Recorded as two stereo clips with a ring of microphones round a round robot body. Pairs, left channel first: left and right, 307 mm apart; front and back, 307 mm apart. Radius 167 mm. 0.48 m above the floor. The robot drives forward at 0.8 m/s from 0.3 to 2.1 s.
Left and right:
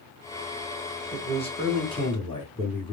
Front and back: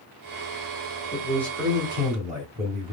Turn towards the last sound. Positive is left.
turn(degrees=145)